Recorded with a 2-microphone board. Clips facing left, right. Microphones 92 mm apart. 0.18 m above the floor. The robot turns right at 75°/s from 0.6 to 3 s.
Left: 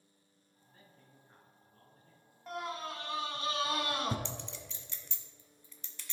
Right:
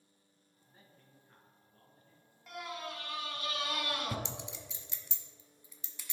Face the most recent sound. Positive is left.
turn(degrees=-10)  # may be behind; listen again after turning